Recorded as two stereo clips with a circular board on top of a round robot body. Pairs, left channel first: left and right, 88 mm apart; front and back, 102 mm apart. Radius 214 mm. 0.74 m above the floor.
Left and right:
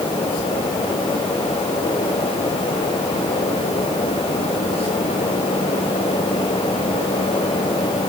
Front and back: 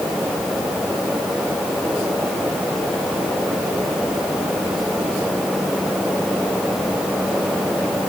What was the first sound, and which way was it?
Only background noise.